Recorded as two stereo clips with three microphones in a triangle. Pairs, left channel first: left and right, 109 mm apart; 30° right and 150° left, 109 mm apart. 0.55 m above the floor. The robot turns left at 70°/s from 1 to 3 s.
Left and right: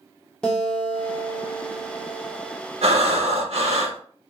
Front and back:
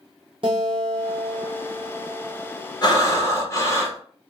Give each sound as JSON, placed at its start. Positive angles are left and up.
{"t": 0.4, "sound": "a guitar", "azimuth_deg": 170, "distance_m": 0.5}
{"t": 2.8, "sound": "breathing", "azimuth_deg": -80, "distance_m": 0.6}